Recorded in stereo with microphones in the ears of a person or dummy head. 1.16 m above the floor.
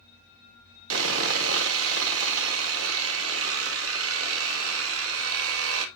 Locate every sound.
0.9 s sawing: 80° right, 1.7 m